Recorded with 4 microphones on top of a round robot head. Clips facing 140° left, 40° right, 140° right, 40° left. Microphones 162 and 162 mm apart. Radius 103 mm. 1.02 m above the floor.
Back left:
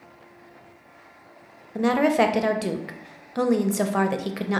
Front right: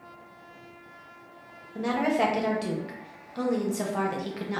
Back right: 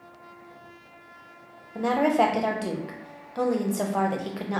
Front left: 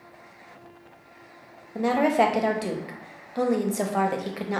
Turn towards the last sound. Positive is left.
turn(degrees=125)